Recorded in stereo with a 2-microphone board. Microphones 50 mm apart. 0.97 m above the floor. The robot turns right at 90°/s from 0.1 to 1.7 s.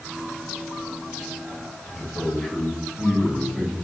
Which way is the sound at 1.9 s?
5° left (ahead or behind).